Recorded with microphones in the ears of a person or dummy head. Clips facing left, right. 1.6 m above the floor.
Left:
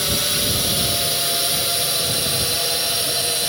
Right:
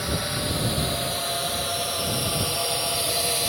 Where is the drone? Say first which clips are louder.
Left 2 dB; 40° left (ahead or behind); by 3.5 s 10° left (ahead or behind).